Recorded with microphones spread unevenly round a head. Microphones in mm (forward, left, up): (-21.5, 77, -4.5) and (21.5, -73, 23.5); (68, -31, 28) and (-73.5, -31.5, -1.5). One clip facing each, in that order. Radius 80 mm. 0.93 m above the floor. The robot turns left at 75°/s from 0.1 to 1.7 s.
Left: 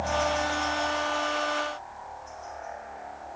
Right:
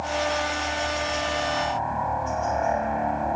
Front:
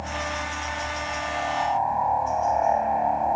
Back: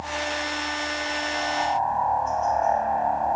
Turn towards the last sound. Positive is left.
turn(degrees=-75)